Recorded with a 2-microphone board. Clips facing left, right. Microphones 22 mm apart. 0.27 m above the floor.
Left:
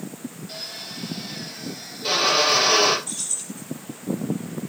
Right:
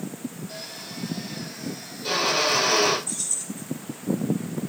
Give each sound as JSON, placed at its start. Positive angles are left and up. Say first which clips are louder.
{"t": 0.5, "sound": "a drill", "louder": "left 3 dB", "side_deg": 35, "distance_m": 5.0}
{"t": 3.1, "sound": "keys jangling", "louder": "even", "side_deg": 50, "distance_m": 6.0}